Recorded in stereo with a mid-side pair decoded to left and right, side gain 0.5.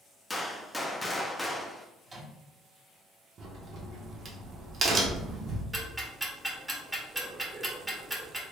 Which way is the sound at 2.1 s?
30° right.